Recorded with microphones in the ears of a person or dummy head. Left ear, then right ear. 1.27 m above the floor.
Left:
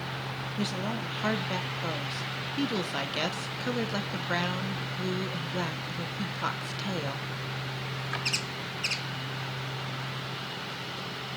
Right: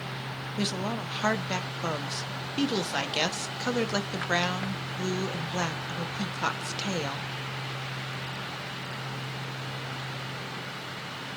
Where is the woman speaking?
20° right (ahead or behind), 0.8 m.